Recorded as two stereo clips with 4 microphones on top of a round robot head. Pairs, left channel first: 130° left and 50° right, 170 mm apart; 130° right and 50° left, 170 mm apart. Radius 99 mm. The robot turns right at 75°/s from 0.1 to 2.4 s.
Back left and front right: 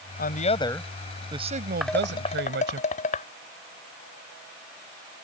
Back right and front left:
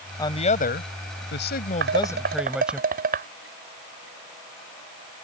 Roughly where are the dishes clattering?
Ahead left.